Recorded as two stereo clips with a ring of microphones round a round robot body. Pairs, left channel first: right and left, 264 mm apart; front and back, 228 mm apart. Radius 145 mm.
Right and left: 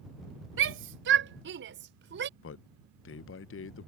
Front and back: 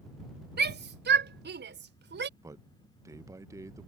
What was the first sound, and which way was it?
A shout, 135° left.